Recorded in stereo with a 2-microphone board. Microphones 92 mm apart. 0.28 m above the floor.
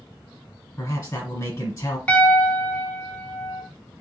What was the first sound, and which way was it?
A man speaking, 30° left (ahead or behind).